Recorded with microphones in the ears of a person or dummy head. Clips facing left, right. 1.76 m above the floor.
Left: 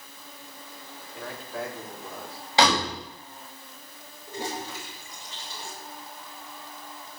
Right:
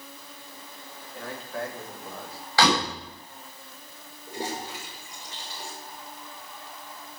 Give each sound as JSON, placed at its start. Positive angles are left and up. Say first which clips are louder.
{"t": 1.1, "sound": "a man speaking", "louder": "right 1 dB", "side_deg": -5, "distance_m": 3.5}
{"t": 2.6, "sound": "a door slam", "louder": "even", "side_deg": 10, "distance_m": 7.0}
{"t": 4.3, "sound": "a toilet flushing", "louder": "even", "side_deg": -20, "distance_m": 7.5}